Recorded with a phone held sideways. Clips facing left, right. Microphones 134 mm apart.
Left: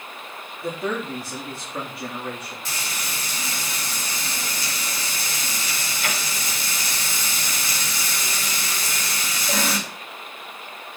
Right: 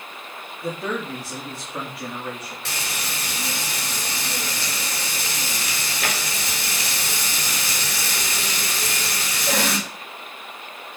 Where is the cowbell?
I don't hear a cowbell.